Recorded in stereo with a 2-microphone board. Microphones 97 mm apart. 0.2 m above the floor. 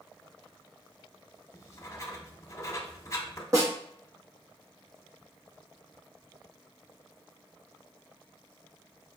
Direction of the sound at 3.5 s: 30° right (ahead or behind).